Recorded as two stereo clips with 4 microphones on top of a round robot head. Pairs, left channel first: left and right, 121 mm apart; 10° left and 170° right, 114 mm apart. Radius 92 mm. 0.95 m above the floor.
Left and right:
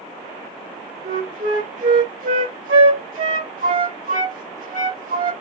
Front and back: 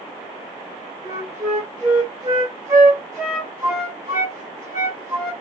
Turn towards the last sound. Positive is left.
turn(degrees=-95)